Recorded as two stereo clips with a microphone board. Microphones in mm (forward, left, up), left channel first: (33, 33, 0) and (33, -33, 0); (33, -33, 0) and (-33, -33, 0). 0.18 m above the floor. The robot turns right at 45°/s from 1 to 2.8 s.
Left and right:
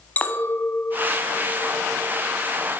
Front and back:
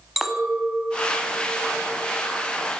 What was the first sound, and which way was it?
A clink, 100° left.